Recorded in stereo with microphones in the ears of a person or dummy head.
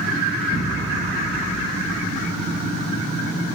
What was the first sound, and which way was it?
An explosion, 20° right (ahead or behind).